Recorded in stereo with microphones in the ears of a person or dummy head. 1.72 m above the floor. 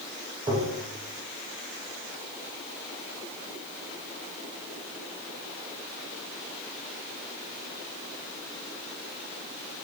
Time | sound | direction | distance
0.5 | tapping | 25° right (ahead or behind) | 1.2 m